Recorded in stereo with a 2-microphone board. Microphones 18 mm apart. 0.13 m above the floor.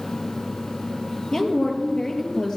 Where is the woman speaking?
35° left (ahead or behind), 3 m.